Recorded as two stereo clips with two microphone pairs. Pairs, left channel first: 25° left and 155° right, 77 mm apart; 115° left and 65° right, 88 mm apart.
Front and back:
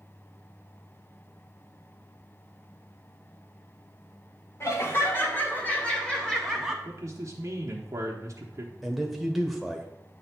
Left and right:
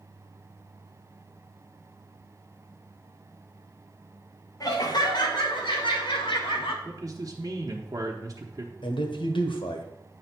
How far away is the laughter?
About 1.7 m.